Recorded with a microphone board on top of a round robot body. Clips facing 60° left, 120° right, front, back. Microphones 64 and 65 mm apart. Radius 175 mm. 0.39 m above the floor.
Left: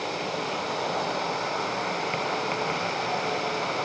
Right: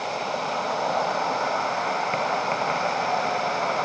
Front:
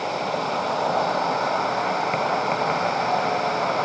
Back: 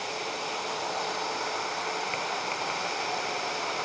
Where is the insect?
55° right.